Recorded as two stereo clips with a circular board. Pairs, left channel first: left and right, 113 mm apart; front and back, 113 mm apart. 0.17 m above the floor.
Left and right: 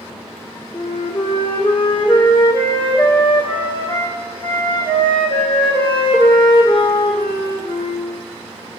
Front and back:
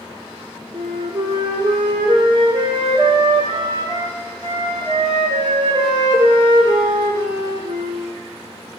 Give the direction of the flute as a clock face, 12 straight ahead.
8 o'clock.